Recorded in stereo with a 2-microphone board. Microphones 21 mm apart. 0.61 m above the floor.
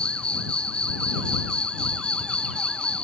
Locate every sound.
0.0 s an insect: 55° left (ahead or behind)